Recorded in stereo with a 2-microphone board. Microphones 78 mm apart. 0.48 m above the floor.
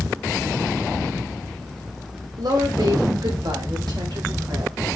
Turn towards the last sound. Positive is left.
turn(degrees=-75)  # may be behind; listen again after turning